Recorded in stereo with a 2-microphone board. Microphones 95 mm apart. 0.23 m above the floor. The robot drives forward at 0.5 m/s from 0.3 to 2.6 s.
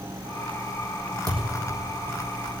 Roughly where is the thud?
Right.